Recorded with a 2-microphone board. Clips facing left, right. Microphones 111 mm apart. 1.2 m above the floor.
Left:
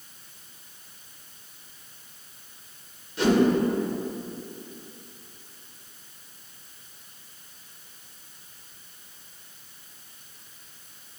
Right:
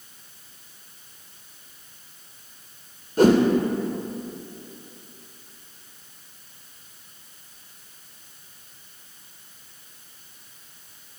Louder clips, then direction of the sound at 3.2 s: Right 6 dB; 45° right (ahead or behind).